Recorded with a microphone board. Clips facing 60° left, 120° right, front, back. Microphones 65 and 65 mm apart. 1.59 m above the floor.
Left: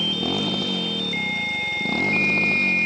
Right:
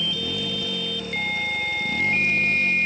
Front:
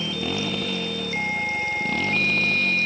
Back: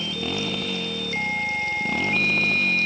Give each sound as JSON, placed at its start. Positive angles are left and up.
{"t": 0.0, "sound": "a motorcycle", "azimuth_deg": 90}